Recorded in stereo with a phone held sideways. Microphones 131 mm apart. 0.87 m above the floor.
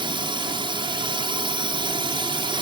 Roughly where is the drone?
Right.